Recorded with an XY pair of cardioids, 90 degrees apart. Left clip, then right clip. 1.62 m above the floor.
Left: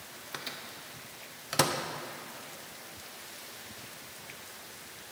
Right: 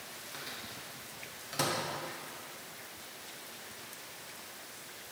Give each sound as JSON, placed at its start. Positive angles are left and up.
{"t": 0.3, "sound": "a microwave", "azimuth_deg": 70, "distance_m": 0.5}